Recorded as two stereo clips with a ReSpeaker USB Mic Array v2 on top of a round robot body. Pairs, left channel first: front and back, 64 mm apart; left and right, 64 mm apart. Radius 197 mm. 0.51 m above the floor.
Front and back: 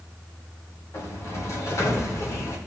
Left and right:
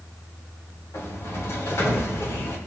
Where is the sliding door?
40° left, 2.5 m.